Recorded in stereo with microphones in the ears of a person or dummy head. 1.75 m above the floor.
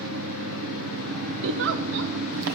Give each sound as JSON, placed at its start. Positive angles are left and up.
{"t": 0.0, "sound": "an engine running", "side_deg": -70, "distance_m": 1.3}
{"t": 1.4, "sound": "a giggle", "side_deg": -60, "distance_m": 1.1}